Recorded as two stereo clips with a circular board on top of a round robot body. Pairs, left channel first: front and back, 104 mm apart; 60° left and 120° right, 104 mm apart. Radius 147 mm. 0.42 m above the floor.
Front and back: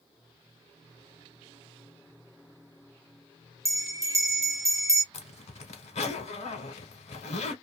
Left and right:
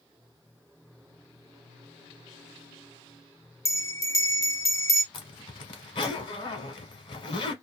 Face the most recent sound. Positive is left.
turn(degrees=15)